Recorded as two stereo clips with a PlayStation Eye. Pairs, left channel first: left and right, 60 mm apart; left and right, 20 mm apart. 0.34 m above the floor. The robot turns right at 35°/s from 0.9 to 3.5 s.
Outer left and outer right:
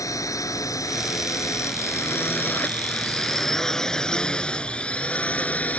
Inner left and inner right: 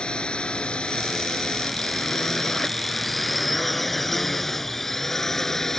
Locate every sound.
0.0 s a drone: 65° left (ahead or behind); by 5.8 s 25° left (ahead or behind)